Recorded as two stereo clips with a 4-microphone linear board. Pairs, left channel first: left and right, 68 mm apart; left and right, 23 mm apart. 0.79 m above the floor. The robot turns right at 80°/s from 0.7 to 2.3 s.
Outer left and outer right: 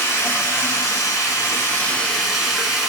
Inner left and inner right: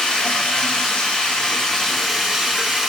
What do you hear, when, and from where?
0.0 s running water: 55° left, 1.1 m; by 2.9 s straight behind, 1.1 m